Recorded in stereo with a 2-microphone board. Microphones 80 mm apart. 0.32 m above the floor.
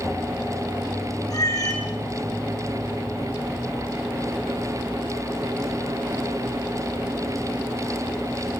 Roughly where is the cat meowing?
Left.